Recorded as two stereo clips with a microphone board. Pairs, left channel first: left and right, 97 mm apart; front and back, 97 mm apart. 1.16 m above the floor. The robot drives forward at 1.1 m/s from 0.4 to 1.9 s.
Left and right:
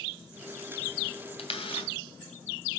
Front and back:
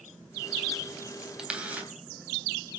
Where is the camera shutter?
100° left, 3 m; by 1.9 s 110° left, 3 m.